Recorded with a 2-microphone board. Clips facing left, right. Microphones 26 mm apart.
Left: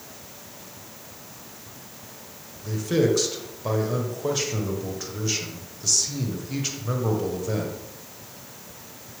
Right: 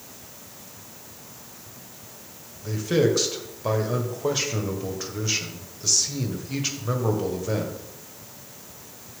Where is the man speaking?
10° right (ahead or behind), 1.4 m.